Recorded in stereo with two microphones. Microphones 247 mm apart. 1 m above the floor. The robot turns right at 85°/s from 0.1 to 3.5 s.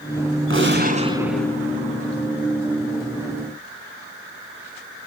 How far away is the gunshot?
About 1.7 m.